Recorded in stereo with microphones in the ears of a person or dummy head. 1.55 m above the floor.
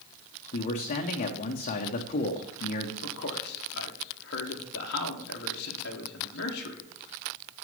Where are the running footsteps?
No running footsteps in this recording.